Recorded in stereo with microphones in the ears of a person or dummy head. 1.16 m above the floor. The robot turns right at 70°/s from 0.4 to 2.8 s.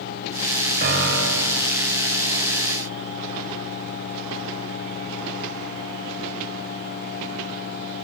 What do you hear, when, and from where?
0.8 s a piano: 125° right, 3 m; by 1.6 s 75° right, 3 m